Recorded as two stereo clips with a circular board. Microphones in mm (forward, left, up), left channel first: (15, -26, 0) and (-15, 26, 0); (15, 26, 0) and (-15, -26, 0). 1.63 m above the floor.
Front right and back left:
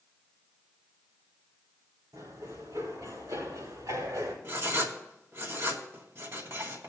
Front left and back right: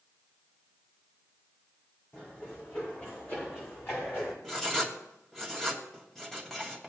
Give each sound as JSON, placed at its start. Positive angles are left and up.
{"t": 2.1, "sound": "running footsteps", "azimuth_deg": 120, "distance_m": 6.0}
{"t": 4.4, "sound": "writing", "azimuth_deg": 140, "distance_m": 2.0}